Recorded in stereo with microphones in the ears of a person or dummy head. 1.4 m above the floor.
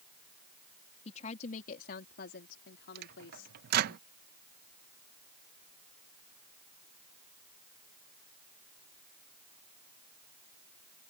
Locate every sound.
1.1 s a woman speaking: 35° left (ahead or behind); by 4.0 s 80° left
3.0 s a microwave: 60° right (ahead or behind)